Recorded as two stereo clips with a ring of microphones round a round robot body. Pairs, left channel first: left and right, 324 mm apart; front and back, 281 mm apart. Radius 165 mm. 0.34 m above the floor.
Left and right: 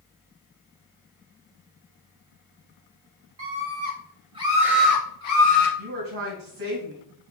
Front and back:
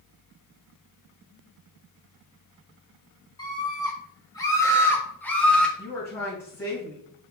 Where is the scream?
70° right, 1.8 m; by 5.7 s 85° left, 1.5 m.